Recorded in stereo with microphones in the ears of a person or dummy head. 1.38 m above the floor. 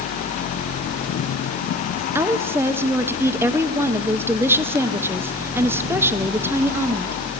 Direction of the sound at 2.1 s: 10° right (ahead or behind).